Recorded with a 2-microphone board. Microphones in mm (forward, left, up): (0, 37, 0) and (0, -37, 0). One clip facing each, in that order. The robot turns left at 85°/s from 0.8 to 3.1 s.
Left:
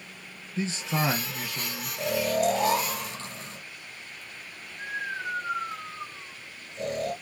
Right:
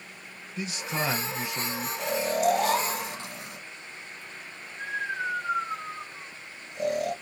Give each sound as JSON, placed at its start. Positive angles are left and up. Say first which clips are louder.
{"t": 0.6, "sound": "a man speaking", "louder": "left 3 dB", "azimuth_deg": 35, "distance_m": 1.1}
{"t": 2.0, "sound": "snoring", "louder": "left 1 dB", "side_deg": 70, "distance_m": 2.0}